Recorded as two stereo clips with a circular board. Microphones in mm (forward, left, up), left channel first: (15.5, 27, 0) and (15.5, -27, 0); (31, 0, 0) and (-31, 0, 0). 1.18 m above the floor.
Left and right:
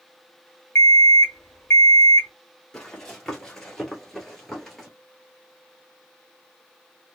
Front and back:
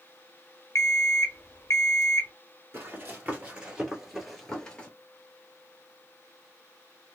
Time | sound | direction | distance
0.8 | an alarm clock | 45° left | 1.0 m
2.7 | running footsteps | 155° left | 1.4 m